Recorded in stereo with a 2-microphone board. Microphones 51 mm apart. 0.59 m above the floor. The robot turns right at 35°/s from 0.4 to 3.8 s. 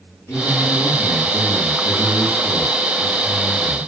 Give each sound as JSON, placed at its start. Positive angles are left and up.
{"t": 0.3, "sound": "a man speaking", "azimuth_deg": 95, "distance_m": 7.5}